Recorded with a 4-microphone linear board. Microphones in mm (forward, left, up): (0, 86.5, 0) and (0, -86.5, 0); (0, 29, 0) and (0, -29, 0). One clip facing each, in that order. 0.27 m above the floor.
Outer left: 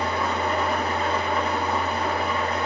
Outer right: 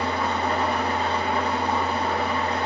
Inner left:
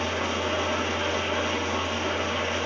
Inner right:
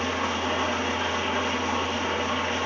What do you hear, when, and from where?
0.0 s an engine running: 35° right (ahead or behind), 0.8 m